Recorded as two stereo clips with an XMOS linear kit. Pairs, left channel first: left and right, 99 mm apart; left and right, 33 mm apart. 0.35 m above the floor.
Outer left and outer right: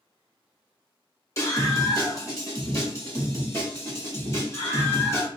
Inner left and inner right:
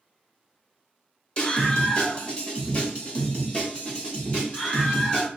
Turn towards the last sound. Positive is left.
turn(degrees=25)  # may be behind; listen again after turning